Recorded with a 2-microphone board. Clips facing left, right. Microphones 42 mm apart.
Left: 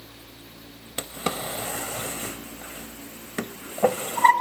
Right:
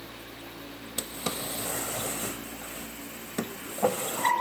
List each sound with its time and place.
1.0 s a drawer: 40° left (ahead or behind), 0.7 m